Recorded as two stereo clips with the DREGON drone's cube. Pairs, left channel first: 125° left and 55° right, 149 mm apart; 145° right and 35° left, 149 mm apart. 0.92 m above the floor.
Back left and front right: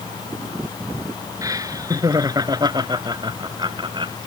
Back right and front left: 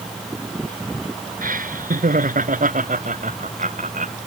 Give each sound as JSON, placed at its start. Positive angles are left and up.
{"t": 1.4, "sound": "laughter", "azimuth_deg": 10}